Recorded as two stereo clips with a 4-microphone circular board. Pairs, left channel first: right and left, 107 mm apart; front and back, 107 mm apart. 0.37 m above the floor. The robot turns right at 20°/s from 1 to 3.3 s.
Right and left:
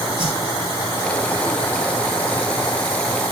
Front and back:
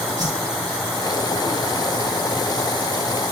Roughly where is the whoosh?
Behind left.